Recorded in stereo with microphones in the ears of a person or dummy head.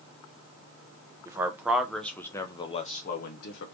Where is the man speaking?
20° right (ahead or behind), 1.1 m; by 3.8 s 60° left (ahead or behind), 1.1 m.